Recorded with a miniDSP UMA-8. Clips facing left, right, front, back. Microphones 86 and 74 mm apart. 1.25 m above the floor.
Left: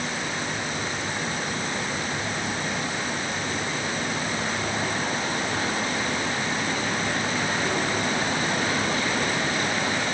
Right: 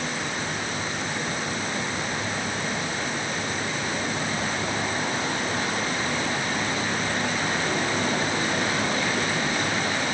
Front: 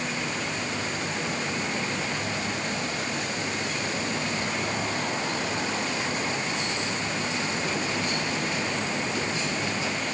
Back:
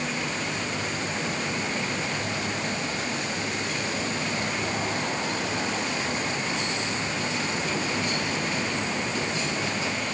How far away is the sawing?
I don't hear sawing.